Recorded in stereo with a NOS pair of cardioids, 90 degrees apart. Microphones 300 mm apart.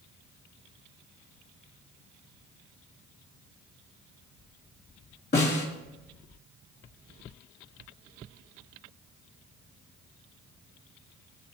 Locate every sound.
5.3 s a snare drum: 35° left, 3 m